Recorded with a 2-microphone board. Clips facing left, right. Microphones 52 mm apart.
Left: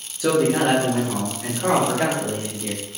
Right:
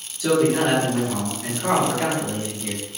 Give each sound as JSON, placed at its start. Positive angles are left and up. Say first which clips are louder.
{"t": 0.2, "sound": "a man speaking", "louder": "even", "side_deg": 30, "distance_m": 1.0}